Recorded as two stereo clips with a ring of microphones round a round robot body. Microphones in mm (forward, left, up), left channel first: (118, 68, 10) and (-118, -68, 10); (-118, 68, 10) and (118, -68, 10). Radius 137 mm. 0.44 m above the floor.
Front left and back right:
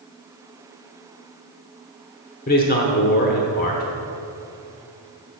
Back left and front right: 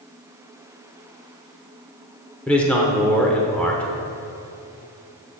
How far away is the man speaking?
About 1.0 m.